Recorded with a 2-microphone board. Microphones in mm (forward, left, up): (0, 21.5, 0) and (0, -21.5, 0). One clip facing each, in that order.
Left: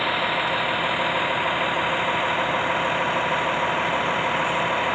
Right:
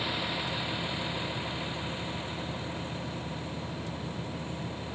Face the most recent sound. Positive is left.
turn(degrees=80)